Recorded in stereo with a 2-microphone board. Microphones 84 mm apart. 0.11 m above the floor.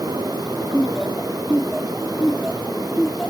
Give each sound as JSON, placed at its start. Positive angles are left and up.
{"t": 0.7, "sound": "laughter", "side_deg": 5}